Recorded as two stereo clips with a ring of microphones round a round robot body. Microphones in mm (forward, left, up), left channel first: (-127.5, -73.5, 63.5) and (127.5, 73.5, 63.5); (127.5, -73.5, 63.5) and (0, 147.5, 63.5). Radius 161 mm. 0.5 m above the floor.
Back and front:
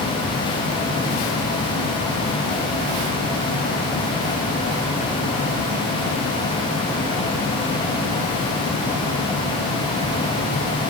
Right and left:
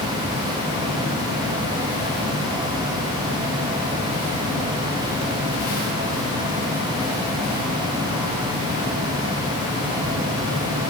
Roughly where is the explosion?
I don't hear an explosion.